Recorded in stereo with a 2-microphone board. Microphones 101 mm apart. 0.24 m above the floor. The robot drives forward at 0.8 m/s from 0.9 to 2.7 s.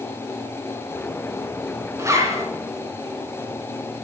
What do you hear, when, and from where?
2.0 s a zipper: 30° right (ahead or behind), 2.5 m; by 2.4 s 35° right (ahead or behind), 2.5 m